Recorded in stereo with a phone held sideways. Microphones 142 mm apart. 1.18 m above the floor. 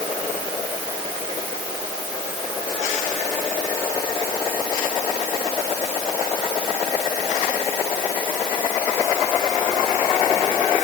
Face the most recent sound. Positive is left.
No sound to turn to.